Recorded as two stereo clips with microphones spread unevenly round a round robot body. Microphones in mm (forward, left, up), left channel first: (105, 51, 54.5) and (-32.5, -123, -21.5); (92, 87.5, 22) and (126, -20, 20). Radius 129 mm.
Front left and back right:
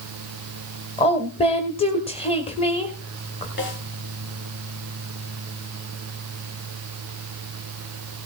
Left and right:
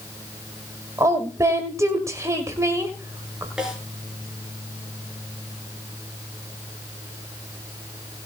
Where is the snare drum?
10° left, 5.5 m.